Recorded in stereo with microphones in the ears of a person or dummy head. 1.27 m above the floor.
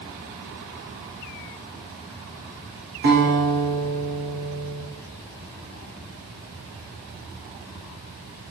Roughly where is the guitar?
Right.